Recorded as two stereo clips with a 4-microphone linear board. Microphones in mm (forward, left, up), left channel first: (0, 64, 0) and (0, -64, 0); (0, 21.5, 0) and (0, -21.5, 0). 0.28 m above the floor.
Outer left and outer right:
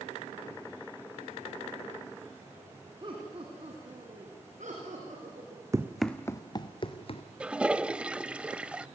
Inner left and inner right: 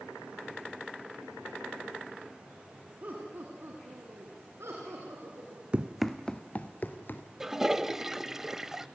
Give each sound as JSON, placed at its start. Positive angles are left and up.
{"t": 3.0, "sound": "laughter", "side_deg": -40, "distance_m": 3.0}
{"t": 5.7, "sound": "running footsteps", "side_deg": -25, "distance_m": 1.0}
{"t": 7.4, "sound": "a toilet flushing", "side_deg": -10, "distance_m": 0.5}